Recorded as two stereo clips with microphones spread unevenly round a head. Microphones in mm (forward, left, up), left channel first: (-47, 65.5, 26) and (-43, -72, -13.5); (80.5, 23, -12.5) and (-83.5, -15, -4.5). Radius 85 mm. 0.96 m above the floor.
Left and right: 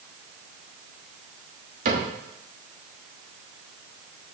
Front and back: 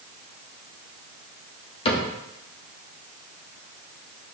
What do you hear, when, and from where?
1.9 s a cupboard door: 45° right, 1.2 m